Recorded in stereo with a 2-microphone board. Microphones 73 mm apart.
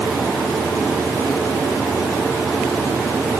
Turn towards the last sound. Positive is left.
No sound to turn to.